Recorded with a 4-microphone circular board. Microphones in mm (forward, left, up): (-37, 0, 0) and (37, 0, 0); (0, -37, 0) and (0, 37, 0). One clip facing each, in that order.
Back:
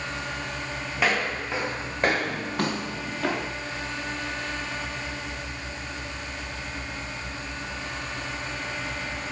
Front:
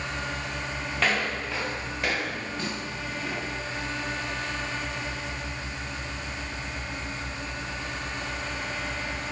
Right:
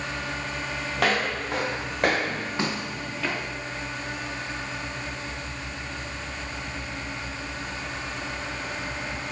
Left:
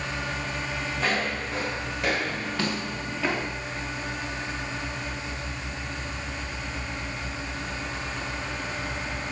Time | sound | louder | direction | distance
1.0 | footsteps | back 2 dB, right 4 dB | 100° right | 2.5 m